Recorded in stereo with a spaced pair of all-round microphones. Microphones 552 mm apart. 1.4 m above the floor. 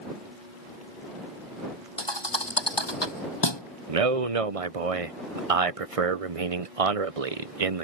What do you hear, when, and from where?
2.0 s a thud: 50° left (ahead or behind)
3.9 s a man speaking: 75° right (ahead or behind)